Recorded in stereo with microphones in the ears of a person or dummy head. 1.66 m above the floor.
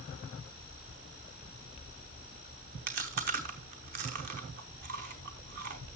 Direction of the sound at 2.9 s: 45° right (ahead or behind).